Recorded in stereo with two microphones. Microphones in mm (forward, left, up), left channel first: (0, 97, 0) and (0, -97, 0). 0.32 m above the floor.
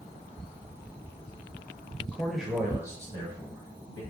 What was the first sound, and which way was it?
A man speaking, 10° left (ahead or behind).